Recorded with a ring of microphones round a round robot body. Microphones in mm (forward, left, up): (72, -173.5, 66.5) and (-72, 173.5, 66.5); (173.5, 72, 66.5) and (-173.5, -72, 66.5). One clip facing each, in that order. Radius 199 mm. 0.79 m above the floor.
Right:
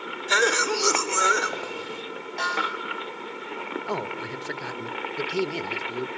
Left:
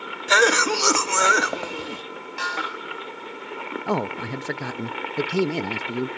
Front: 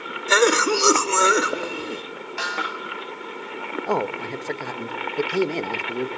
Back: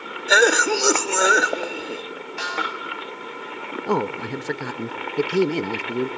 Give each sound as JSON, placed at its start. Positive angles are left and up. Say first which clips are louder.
{"t": 0.3, "sound": "a cough", "louder": "left 4 dB, even", "azimuth_deg": 105, "distance_m": 1.5}
{"t": 2.4, "sound": "a snare drum", "louder": "right 1 dB, back 1 dB", "azimuth_deg": 40, "distance_m": 7.5}
{"t": 3.9, "sound": "a man speaking", "louder": "left 9 dB, back 2 dB", "azimuth_deg": 135, "distance_m": 0.8}